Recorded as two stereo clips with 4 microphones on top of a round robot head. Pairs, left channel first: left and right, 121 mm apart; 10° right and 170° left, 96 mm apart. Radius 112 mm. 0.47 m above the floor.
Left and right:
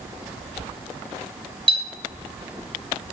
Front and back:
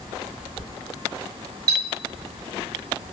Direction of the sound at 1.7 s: 135° right.